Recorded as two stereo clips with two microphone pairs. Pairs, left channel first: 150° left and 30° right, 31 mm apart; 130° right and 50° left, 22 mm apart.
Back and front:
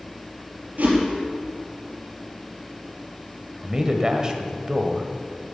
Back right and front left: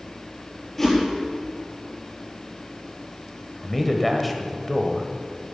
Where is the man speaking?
50° right, 1.2 m.